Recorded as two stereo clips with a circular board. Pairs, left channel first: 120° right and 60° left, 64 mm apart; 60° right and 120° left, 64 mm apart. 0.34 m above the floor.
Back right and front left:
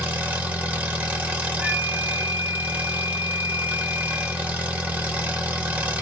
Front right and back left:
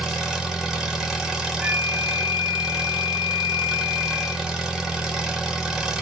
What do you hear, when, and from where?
0.0 s an engine running: 55° left, 0.9 m
1.6 s a flute: 40° left, 1.3 m